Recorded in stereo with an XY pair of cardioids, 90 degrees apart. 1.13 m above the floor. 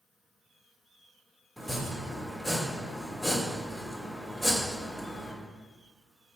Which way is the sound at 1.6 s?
10° left.